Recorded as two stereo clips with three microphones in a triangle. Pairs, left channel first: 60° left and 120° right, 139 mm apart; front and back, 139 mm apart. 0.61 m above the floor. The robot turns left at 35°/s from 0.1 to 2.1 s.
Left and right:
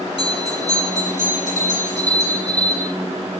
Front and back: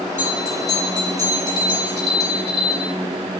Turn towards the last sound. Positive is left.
turn(degrees=40)